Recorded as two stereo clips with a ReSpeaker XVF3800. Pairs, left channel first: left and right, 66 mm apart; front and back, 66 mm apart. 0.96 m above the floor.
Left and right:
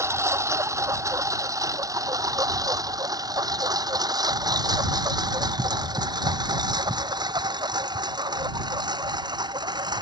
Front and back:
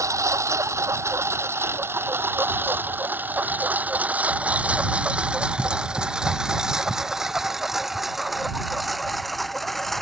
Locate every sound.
0.0 s a lawn mower: 140° right; by 10.0 s 90° right